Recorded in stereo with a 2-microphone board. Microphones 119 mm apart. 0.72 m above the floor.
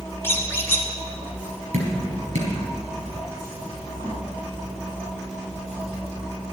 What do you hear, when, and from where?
0.2 s a squeak: 20° left (ahead or behind), 1.9 m
1.7 s dripping: 75° right (ahead or behind), 4.5 m